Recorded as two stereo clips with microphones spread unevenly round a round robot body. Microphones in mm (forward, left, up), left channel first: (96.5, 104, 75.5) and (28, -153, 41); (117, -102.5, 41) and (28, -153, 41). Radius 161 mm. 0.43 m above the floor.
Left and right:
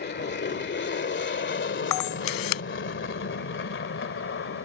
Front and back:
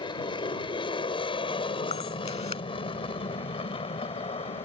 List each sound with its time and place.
0.0 s an aircraft: 35° left; by 4.7 s 40° left
1.9 s a camera shutter: 90° left